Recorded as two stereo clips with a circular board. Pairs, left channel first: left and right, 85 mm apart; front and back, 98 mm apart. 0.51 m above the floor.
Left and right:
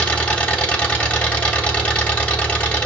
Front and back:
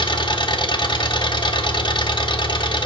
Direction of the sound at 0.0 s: 20° left.